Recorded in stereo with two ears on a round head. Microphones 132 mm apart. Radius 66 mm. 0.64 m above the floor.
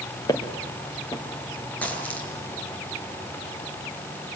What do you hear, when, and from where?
0.3 s footsteps: 25° left (ahead or behind), 3 m
1.8 s a dropped coin: 10° left (ahead or behind), 6 m